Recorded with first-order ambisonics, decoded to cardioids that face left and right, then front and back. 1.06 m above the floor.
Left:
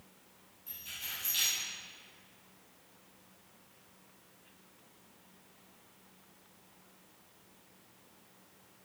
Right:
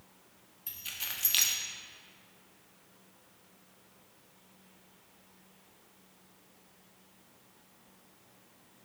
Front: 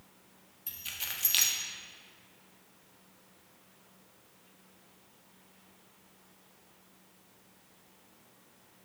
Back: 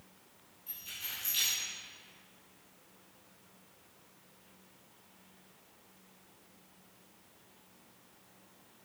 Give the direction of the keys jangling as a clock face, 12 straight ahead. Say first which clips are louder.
Right 3 dB, front 4 dB; 1 o'clock.